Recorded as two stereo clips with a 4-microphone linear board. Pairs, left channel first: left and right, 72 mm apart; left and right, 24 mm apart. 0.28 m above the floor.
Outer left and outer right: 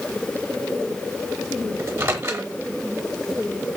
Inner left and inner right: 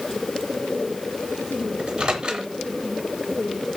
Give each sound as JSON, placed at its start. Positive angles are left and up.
{"t": 1.8, "sound": "a microwave", "side_deg": -35, "distance_m": 0.7}